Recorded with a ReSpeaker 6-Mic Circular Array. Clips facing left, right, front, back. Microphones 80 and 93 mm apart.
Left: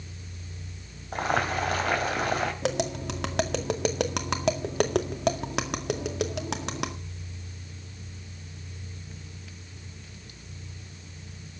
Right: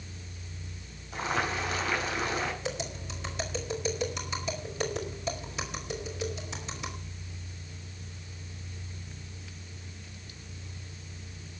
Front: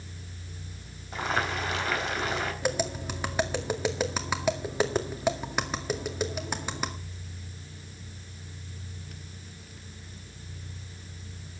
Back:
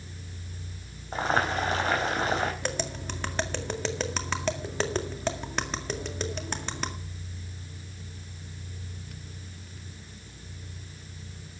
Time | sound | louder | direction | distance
1.1 | boiling | left 4 dB, back 3 dB | 125° left | 3.5 m
2.6 | tapping | left 8 dB, front 3 dB | 80° left | 1.9 m